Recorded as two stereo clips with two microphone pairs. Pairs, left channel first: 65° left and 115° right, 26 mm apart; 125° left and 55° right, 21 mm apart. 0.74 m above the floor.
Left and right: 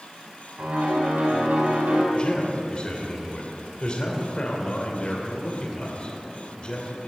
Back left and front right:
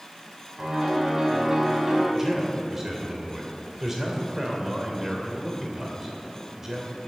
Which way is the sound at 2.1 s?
20° left.